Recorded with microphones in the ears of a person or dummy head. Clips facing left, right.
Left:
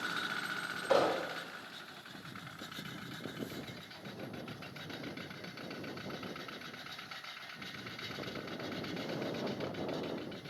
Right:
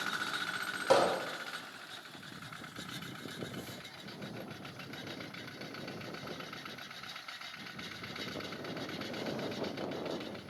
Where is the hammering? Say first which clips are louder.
Right 2 dB; 80° right, 5.5 m.